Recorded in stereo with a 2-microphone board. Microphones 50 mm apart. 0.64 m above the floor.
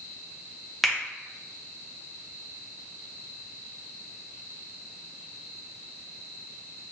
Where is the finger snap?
Centre (ahead or behind), 0.9 m.